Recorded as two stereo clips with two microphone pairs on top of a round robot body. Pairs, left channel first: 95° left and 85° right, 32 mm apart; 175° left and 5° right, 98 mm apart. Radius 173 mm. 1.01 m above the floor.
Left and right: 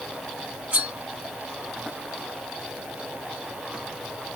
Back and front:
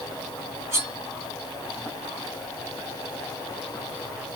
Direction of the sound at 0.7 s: 65° right.